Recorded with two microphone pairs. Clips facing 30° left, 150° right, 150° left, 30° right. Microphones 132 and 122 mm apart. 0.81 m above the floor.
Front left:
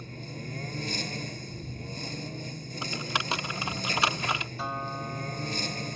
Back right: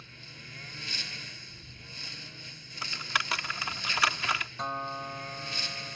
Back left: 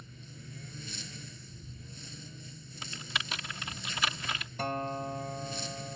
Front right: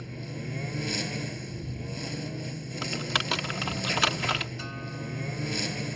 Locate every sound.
0.0 s a lawn mower: 15° right
2.8 s typing on a keyboard: 35° right
4.6 s a guitar: 120° left